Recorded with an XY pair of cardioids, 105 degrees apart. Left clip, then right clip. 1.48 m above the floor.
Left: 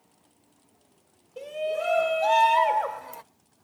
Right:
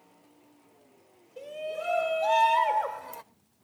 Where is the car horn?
No car horn in this recording.